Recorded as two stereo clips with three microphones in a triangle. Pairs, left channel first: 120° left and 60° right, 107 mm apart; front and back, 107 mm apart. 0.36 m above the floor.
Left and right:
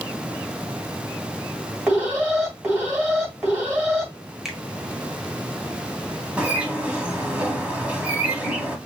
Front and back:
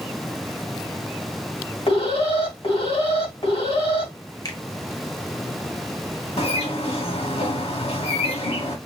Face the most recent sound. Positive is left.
turn(degrees=20)